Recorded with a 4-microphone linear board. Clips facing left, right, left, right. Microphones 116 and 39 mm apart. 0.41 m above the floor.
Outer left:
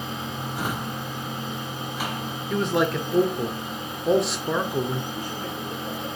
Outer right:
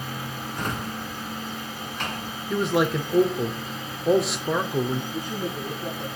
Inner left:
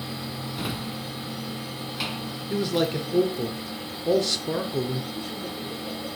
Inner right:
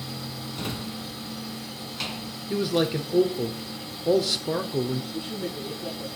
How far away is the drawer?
About 1.3 m.